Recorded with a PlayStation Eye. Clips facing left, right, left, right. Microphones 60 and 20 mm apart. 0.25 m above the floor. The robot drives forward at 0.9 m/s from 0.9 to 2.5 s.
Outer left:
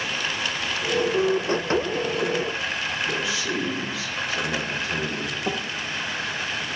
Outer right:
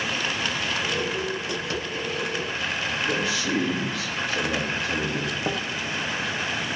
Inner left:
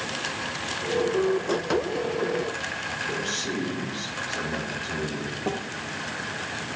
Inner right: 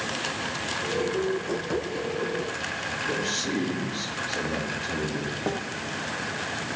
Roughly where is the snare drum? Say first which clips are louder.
Outer left 1 dB, inner left 1 dB; right.